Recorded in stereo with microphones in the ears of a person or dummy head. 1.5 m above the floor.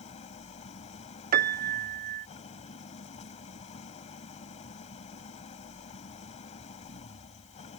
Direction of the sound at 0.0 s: 30° left (ahead or behind).